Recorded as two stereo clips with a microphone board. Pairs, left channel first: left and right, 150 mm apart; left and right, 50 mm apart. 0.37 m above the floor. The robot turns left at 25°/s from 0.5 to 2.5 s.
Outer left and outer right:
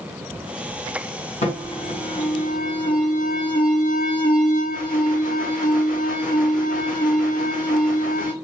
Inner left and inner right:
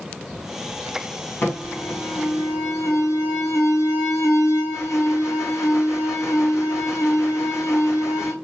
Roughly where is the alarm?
Left.